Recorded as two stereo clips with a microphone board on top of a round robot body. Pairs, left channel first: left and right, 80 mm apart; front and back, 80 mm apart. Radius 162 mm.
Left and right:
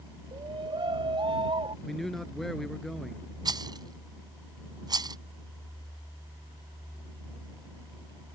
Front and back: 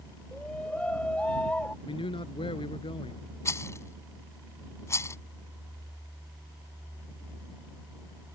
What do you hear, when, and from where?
0.3 s a shout: 75° right
1.9 s a man speaking: 5° left
3.5 s a rattle: 55° right